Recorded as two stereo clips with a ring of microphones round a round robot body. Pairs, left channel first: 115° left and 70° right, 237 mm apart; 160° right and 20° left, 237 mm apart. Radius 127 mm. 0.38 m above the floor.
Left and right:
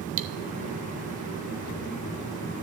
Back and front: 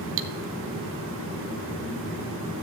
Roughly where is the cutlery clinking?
Ahead.